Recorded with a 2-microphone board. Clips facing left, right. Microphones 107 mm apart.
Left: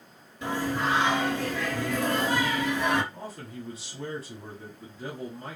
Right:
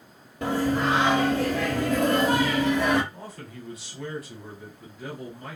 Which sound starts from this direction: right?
Singing, at 0.4 s.